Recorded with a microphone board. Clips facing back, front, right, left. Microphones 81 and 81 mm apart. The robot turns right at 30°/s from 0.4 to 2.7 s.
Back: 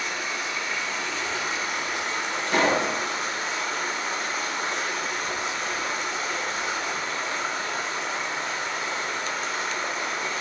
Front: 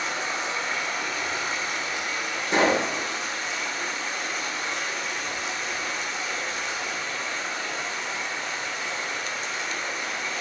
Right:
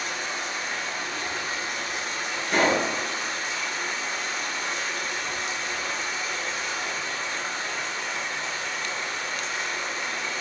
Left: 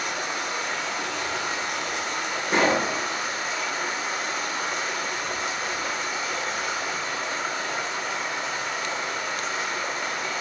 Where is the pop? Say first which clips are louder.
Front 1 dB, even; 35° left, 0.7 m; by 2.9 s 40° left, 0.7 m.